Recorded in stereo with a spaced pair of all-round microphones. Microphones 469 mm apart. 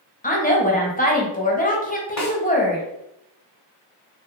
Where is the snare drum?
35° left (ahead or behind), 0.8 m.